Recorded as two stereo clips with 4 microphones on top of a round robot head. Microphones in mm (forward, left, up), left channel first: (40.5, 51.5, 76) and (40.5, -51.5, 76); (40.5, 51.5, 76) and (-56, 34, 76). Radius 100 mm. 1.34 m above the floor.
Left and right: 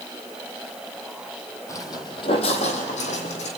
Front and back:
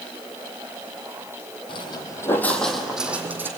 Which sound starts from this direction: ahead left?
Footsteps, at 1.7 s.